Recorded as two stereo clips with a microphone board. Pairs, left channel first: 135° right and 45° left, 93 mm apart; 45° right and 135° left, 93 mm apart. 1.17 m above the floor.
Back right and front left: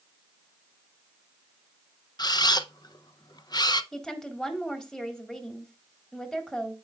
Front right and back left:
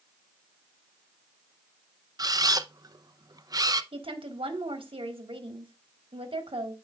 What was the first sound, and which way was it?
A camera shutter, straight behind.